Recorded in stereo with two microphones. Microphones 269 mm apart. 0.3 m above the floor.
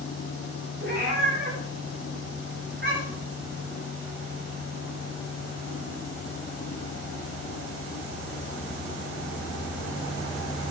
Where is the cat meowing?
40° right (ahead or behind), 9.5 m.